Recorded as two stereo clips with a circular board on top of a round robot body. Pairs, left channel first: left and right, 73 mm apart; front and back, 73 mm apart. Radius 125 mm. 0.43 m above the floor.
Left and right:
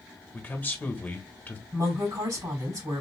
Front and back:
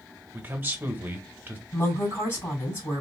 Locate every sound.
0.3 s a man speaking: 135° left, 1.2 m
1.7 s a woman speaking: 55° right, 3 m